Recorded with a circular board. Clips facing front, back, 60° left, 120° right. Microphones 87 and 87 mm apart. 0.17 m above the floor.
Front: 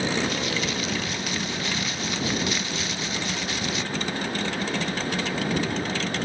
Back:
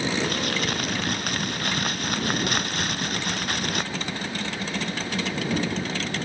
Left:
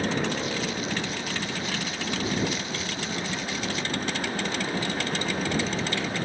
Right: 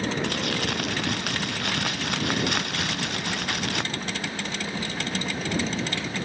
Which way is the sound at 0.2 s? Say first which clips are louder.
Even, right 1 dB; 145° right.